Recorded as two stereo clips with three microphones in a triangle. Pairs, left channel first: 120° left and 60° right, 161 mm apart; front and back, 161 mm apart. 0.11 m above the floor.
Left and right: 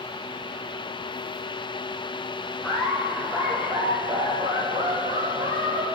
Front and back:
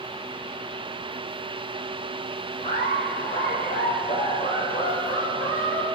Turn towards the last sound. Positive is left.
turn(degrees=-30)